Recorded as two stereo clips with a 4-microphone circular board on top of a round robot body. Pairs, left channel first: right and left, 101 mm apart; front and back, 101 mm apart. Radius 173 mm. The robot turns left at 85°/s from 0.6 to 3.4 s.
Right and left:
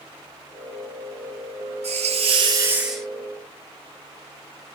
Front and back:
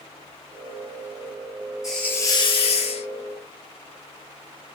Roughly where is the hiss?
Left.